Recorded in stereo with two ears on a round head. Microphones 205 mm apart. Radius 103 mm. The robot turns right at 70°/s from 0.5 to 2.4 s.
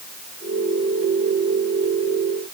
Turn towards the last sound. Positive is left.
No sound to turn to.